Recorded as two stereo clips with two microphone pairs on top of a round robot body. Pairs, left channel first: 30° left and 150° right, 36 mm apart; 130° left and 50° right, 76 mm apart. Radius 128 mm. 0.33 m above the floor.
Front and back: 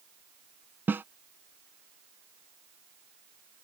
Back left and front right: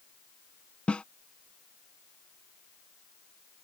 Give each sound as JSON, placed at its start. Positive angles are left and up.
{"t": 0.9, "sound": "a snare drum", "azimuth_deg": -155}